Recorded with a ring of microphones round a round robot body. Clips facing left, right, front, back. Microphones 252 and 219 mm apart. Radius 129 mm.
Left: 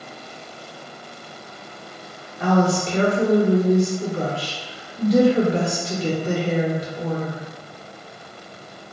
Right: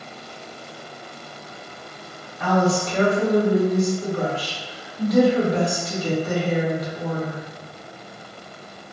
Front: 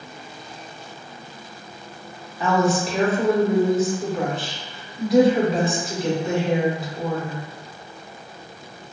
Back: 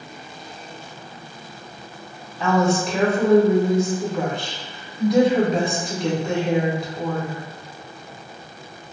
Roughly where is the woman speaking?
Left.